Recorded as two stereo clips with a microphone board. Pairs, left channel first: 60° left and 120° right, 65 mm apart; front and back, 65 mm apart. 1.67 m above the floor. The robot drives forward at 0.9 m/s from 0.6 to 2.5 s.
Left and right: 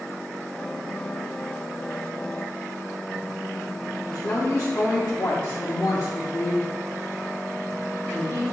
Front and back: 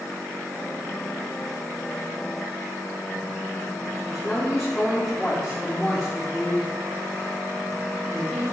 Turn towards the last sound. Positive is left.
turn(degrees=90)